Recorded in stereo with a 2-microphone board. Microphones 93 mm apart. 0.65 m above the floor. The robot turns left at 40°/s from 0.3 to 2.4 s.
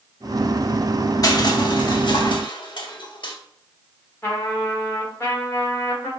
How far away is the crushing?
About 0.7 m.